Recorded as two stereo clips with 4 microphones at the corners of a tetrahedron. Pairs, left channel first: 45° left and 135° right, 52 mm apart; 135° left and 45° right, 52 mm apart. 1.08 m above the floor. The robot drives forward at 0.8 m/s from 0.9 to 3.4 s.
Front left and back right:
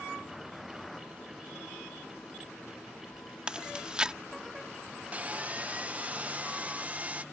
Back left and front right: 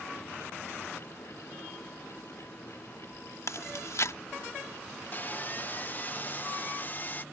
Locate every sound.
3.5 s chewing: 150° left
5.1 s sawing: 170° left